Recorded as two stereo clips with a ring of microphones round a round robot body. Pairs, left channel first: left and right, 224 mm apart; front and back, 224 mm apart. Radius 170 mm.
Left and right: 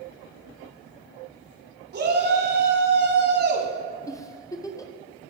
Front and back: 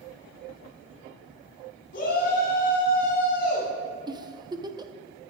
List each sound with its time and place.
1.9 s a shout: 55° right, 2 m
4.1 s a giggle: 140° left, 0.7 m